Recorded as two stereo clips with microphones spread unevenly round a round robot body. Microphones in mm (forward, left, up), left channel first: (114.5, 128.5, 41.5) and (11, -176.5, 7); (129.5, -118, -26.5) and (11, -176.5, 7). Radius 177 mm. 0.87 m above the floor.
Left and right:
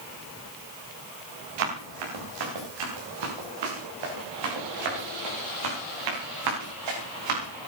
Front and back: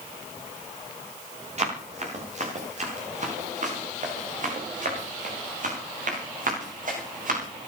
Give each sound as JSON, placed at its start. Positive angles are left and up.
{"t": 1.6, "sound": "running footsteps", "azimuth_deg": -120, "distance_m": 9.0}